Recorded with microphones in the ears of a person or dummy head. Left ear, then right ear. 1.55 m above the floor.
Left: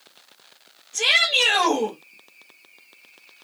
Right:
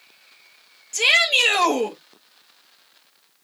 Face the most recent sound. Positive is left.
turn(degrees=-85)